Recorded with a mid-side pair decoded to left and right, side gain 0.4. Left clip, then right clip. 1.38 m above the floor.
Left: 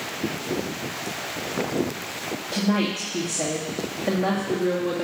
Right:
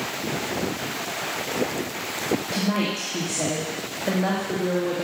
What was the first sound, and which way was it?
A woman speaking, 10° left.